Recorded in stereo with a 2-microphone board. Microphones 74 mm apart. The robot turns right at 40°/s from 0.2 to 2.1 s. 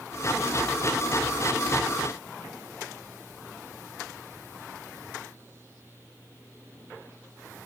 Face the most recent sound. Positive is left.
No sound to turn to.